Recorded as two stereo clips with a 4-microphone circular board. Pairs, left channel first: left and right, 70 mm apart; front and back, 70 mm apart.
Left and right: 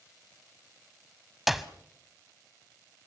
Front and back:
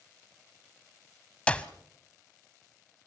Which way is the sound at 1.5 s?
10° right.